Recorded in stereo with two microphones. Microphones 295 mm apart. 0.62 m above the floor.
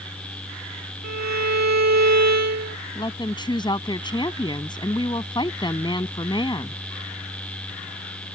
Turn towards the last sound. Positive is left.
turn(degrees=15)  # may be behind; listen again after turning